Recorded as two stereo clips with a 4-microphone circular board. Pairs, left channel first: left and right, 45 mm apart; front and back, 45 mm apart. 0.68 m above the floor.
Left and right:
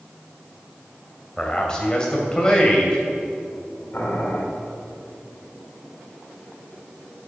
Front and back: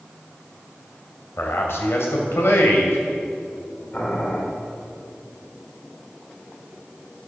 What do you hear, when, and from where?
1.4 s a man speaking: 20° left, 3 m
3.9 s boiling: 50° left, 2.5 m